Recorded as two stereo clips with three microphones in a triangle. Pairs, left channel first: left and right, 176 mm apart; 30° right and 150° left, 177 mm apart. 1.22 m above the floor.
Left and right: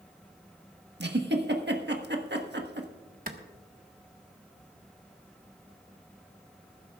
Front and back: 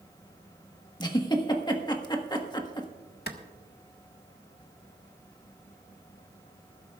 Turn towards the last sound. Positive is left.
turn(degrees=-55)